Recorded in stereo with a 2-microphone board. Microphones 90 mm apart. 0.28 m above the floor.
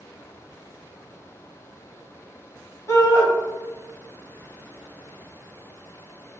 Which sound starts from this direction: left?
A shout, at 2.9 s.